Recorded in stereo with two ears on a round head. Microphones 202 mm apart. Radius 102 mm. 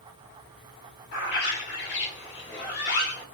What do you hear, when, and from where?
1.1 s a bird: 50° left (ahead or behind), 1.2 m